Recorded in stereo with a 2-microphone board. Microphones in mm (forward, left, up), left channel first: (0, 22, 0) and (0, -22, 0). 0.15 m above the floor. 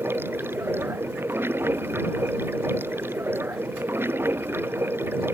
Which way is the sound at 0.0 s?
55° right (ahead or behind).